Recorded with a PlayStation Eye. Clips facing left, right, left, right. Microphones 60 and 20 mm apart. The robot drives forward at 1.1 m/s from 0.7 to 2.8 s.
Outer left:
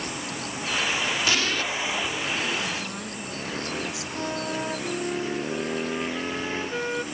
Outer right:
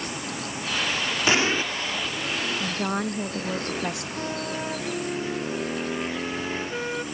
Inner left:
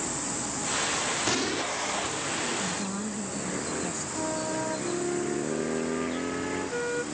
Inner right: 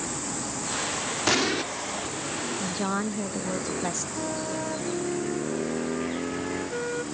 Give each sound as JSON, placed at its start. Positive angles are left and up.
{"t": 1.3, "sound": "an explosion", "side_deg": -30}
{"t": 2.6, "sound": "a woman speaking", "side_deg": -50}
{"t": 4.2, "sound": "a flute", "side_deg": 5}